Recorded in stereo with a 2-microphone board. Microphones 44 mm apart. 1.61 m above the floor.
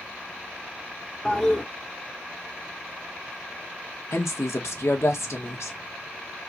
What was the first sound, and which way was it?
A toilet flushing, 20° left (ahead or behind).